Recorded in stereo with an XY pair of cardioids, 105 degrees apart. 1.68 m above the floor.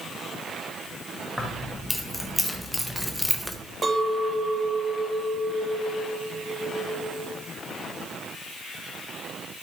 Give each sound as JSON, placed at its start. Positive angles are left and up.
{"t": 1.4, "sound": "keys jangling", "azimuth_deg": 5, "distance_m": 2.0}
{"t": 3.8, "sound": "a clink", "azimuth_deg": -25, "distance_m": 1.7}